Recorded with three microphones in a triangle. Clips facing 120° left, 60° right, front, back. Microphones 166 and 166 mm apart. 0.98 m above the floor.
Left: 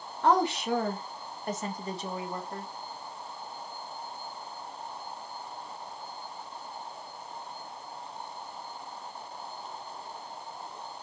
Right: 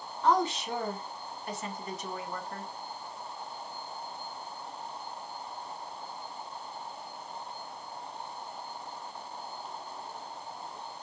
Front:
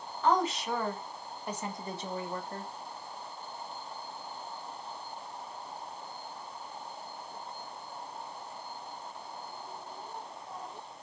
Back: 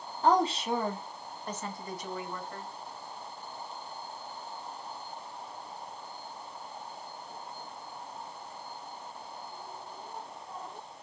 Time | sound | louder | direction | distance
0.2 | a woman speaking | left 2 dB, back 2 dB | 130° left | 1.2 m